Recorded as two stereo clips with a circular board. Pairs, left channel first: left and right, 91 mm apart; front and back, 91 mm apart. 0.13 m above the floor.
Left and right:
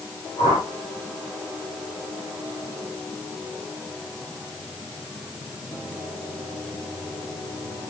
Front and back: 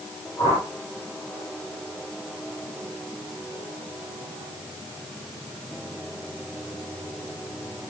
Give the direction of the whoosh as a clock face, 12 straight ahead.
10 o'clock.